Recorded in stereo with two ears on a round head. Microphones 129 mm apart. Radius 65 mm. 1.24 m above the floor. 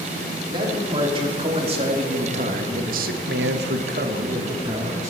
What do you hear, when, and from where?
0.5 s a man speaking: 35° right (ahead or behind), 3 m; by 5.1 s 25° right (ahead or behind), 1.5 m